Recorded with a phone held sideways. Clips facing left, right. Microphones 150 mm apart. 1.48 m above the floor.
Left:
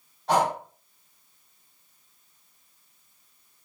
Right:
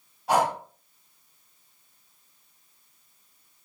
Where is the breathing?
10° right (ahead or behind), 1.5 m.